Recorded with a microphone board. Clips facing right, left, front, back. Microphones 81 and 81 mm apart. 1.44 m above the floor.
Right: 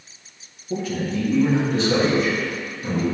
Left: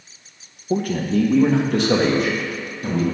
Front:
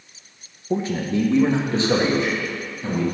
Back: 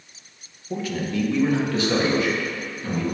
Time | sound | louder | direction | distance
0.7 | a man speaking | left 5 dB, front 4 dB | 60° left | 0.8 m